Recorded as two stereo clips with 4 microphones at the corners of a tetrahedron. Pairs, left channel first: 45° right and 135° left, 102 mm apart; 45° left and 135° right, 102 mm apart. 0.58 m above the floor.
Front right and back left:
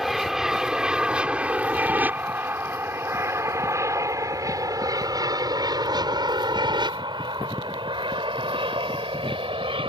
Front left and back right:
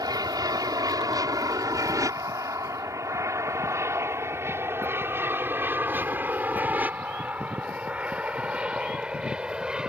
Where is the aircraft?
140° right; by 9.9 s 145° left.